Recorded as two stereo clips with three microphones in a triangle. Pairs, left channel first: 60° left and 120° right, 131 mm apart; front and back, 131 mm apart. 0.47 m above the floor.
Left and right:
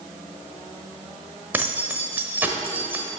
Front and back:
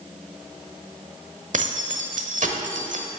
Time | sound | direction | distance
1.5 | keys jangling | 165° left | 1.0 m